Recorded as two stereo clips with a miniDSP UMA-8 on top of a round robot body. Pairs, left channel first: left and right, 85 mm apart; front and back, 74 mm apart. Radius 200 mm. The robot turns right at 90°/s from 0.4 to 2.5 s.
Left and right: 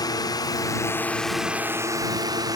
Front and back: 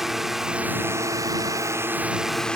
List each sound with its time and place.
0.0 s a drone: 95° left; by 2.6 s 75° right